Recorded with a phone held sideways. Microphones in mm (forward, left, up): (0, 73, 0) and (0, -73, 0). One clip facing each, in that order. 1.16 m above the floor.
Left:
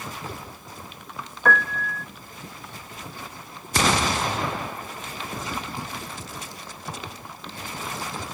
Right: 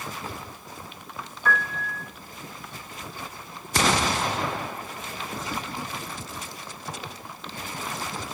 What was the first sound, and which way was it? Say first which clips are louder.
A piano: left 4 dB; 60° left (ahead or behind).